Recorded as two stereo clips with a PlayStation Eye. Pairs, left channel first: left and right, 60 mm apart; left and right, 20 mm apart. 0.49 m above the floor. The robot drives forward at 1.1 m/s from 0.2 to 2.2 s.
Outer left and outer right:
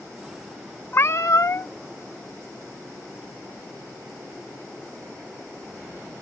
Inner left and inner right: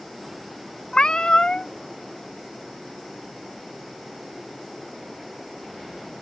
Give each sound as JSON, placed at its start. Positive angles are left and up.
{"t": 0.9, "sound": "a cat meowing", "side_deg": 40}